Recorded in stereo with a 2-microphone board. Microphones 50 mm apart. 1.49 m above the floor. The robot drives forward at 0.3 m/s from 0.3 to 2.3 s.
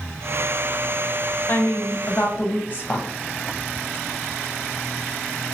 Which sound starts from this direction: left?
A woman speaking, at 1.5 s.